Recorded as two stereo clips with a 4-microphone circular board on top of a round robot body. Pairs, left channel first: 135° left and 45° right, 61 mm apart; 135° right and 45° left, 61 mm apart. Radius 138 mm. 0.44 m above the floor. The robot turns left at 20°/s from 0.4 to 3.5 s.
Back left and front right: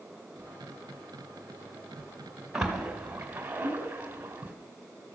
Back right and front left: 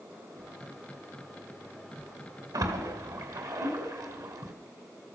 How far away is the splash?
About 2.5 m.